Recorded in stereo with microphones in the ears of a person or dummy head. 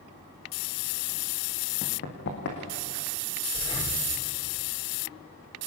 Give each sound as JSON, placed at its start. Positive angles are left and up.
{"t": 1.8, "sound": "running footsteps", "side_deg": 55, "distance_m": 4.5}
{"t": 3.5, "sound": "breathing", "side_deg": 25, "distance_m": 3.5}